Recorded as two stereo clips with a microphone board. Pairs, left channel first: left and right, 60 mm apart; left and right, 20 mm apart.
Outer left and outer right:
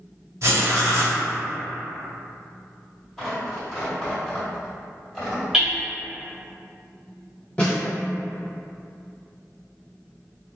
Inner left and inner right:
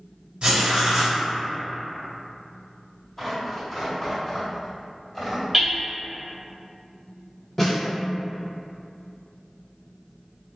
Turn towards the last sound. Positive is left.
turn(degrees=15)  # may be behind; listen again after turning